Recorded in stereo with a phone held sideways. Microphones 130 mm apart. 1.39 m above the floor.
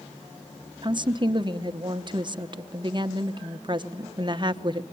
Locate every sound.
0.8 s a woman speaking: 35° right (ahead or behind), 1.1 m